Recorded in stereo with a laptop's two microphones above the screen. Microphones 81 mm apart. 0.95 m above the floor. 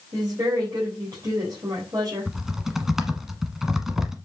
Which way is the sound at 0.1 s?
45° right (ahead or behind).